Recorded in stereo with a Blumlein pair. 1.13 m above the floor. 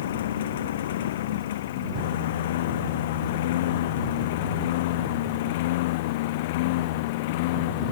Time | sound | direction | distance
0.0 | a lawn mower | 60° left | ?